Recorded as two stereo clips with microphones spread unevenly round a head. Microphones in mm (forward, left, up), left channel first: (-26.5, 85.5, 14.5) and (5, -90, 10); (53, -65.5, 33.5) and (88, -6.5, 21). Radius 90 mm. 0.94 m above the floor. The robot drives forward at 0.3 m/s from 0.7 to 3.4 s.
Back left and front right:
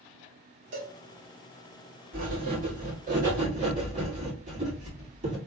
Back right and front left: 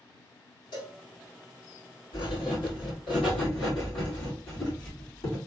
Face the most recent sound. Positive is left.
turn(degrees=-130)